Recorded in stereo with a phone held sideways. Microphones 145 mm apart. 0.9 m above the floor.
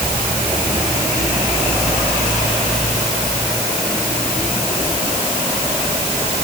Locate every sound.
Only background noise.